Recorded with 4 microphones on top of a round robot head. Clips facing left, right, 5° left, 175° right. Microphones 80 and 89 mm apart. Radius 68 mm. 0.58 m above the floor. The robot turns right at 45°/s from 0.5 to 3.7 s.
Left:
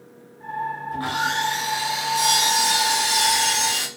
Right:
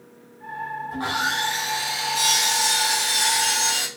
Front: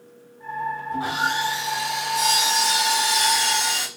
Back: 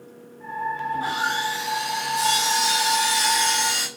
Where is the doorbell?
I don't hear a doorbell.